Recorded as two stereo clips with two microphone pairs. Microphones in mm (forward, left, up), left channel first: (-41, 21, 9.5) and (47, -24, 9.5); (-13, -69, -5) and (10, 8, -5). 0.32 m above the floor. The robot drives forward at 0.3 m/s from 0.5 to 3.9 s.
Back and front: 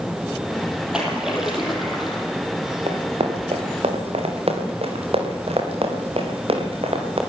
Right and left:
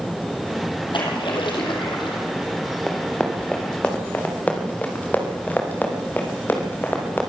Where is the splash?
110° right, 5 m; by 2.2 s 115° right, 5 m.